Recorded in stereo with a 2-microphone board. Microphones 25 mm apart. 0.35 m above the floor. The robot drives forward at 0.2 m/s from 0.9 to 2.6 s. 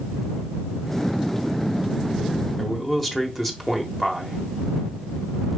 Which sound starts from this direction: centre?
A man speaking, at 2.6 s.